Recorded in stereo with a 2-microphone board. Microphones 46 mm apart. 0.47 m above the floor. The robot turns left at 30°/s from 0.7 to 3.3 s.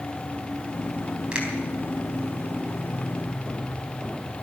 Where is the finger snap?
20° right (ahead or behind), 3.5 m.